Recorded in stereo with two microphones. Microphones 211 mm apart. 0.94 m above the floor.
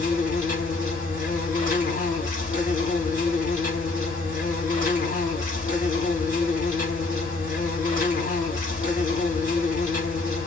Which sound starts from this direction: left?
An insect, at 0.0 s.